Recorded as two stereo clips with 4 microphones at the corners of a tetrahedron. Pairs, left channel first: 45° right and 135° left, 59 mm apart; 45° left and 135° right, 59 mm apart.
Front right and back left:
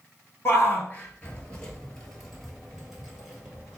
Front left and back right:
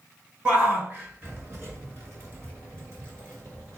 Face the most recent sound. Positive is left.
turn(degrees=-155)